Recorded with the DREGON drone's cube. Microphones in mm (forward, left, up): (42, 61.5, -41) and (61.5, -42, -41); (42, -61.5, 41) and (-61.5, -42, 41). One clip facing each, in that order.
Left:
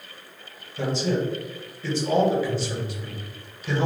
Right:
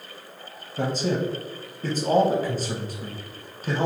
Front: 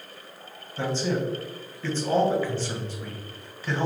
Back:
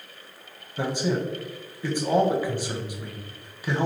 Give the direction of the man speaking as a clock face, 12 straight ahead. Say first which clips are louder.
Even, back 1 dB; 4 o'clock.